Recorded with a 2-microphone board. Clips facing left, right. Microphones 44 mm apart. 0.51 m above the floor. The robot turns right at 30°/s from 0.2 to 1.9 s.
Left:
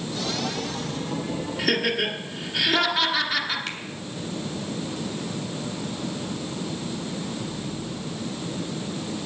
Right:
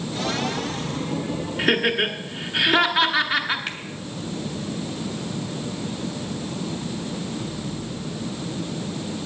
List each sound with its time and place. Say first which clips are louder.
1.6 s laughter: right 4 dB; 25° right (ahead or behind), 1.3 m
3.7 s a finger snap: right 2 dB; 15° right (ahead or behind), 1.9 m